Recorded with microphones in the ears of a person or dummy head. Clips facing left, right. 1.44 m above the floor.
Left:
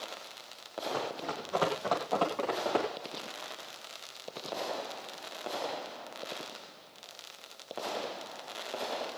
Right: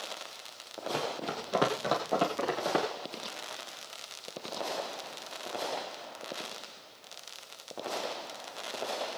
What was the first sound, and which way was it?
Running footsteps, 40° right (ahead or behind).